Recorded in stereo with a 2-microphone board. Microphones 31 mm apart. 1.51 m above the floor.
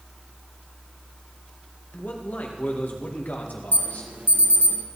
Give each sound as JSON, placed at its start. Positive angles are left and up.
{"t": 1.9, "sound": "a man speaking", "side_deg": 70, "distance_m": 2.0}
{"t": 3.7, "sound": "an alarm", "side_deg": -80, "distance_m": 1.7}